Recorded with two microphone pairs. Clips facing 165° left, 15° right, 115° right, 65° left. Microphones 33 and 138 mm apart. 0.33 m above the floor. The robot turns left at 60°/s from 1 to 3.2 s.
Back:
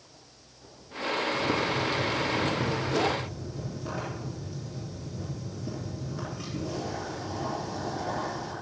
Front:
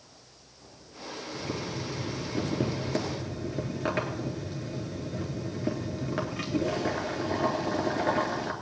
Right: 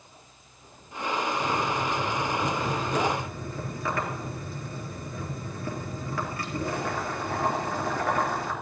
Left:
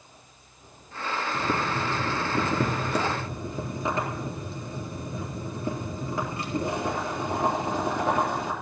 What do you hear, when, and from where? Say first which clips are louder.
1.3 s boiling: back 8 dB, even; 110° left, 3.5 m; by 8.5 s straight ahead, 3.5 m